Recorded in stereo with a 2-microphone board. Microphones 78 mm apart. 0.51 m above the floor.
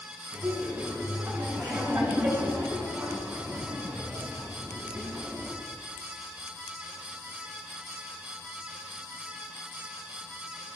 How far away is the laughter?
About 5 m.